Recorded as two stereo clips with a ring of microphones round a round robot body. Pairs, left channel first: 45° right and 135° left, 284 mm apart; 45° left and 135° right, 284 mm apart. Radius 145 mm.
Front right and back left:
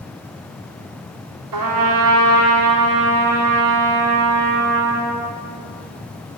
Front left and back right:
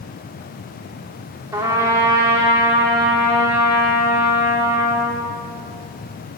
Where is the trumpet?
145° left, 3 m.